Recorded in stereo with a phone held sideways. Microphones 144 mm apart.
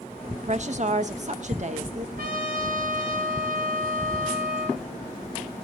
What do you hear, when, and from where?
0.3 s a woman speaking: 55° right (ahead or behind), 1.3 m
2.2 s a trumpet: 80° right, 3.5 m